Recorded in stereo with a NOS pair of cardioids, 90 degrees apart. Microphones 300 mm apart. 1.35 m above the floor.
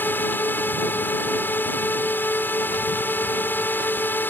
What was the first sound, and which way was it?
A drone, 5° left.